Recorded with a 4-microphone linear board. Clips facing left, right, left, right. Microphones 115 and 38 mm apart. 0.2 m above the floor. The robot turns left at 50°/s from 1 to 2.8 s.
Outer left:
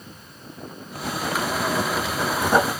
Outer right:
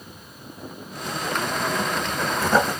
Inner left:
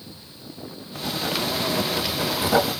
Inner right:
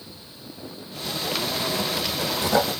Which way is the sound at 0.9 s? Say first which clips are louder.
Outer left 1 dB, inner left 2 dB; 90° left.